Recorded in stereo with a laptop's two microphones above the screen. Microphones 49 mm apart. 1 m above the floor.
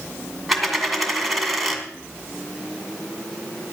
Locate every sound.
0.5 s a dropped coin: centre (ahead or behind), 1.8 m